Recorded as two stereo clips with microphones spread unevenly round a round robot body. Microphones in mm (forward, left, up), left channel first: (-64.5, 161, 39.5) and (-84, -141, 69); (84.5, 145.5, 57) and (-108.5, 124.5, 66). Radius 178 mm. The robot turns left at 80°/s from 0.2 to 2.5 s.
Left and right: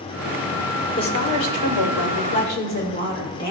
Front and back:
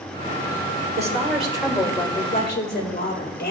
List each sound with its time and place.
1.0 s a woman speaking: 160° left, 2 m; by 3.5 s 35° left, 2 m